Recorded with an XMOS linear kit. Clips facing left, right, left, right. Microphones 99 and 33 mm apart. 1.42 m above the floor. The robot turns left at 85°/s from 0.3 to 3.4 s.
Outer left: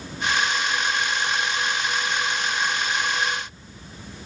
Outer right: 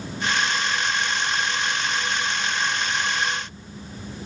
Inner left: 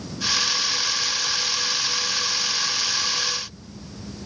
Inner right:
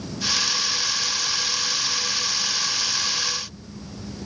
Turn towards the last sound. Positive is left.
No sound to turn to.